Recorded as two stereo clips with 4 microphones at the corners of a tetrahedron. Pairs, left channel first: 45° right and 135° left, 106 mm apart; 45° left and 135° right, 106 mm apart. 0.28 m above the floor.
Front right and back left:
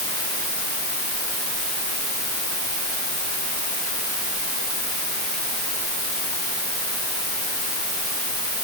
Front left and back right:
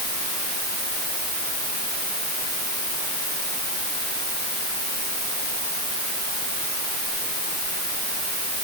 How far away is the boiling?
I don't hear boiling.